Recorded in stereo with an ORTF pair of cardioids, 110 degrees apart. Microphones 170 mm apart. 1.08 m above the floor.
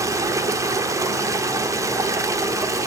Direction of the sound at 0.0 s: 20° right.